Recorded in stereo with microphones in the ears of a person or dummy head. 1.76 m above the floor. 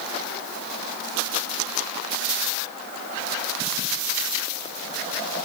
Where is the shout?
I don't hear a shout.